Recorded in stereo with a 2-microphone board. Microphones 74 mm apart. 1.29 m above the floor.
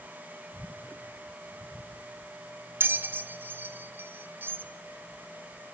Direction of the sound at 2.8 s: 25° right (ahead or behind).